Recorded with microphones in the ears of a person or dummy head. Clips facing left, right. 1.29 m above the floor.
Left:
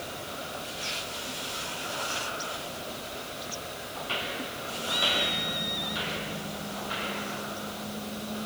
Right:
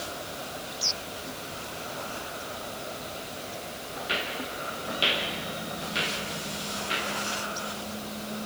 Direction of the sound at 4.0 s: 30° right (ahead or behind).